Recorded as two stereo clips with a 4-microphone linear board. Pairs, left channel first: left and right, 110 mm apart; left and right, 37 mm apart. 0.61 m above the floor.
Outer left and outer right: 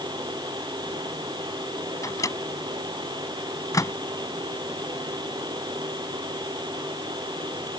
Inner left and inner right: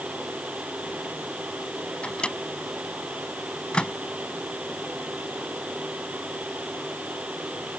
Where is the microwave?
30° left (ahead or behind).